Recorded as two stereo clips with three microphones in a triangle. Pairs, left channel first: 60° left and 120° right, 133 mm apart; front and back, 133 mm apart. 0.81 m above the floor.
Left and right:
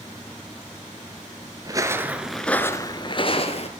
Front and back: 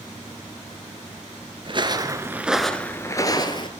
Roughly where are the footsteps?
Behind.